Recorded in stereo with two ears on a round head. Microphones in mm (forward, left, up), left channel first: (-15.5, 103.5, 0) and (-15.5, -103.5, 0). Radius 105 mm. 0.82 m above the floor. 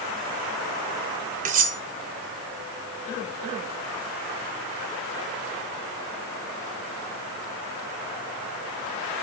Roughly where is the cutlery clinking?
Right.